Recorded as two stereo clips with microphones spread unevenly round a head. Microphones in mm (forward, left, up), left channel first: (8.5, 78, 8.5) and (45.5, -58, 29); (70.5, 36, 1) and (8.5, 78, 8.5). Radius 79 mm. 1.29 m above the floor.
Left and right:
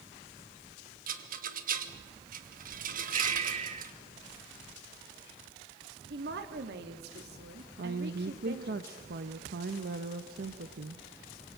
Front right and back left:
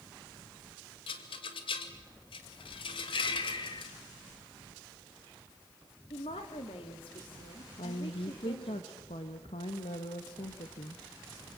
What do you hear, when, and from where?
1.1 s a rattle: 45° right, 2 m
3.1 s breathing: 25° right, 1.6 m
6.1 s a woman speaking: 65° right, 3 m
7.8 s a woman speaking: 55° right, 1.3 m